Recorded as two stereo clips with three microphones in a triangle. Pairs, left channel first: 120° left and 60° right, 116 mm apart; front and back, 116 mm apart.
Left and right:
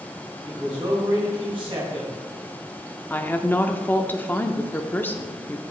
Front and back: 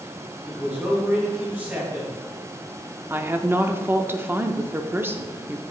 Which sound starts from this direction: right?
A man speaking, at 0.5 s.